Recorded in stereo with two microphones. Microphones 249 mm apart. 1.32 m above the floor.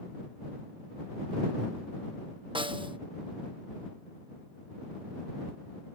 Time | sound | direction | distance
2.5 | a snare drum | 20° right (ahead or behind) | ?